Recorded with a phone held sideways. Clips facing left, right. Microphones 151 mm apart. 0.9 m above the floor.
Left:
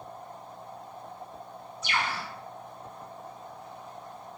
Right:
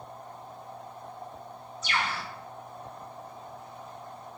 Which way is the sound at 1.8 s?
55° left (ahead or behind).